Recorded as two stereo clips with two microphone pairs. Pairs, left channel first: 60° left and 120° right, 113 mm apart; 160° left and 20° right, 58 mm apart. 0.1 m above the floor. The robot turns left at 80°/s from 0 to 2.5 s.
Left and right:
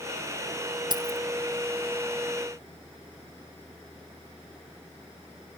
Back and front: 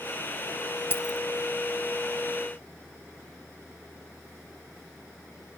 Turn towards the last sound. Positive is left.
turn(degrees=70)